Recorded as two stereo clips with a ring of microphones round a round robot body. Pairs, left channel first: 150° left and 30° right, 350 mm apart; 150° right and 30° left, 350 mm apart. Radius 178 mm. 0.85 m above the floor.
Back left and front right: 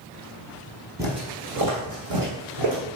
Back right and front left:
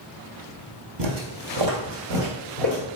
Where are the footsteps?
50° left, 1.4 m; by 2.9 s 5° left, 3 m.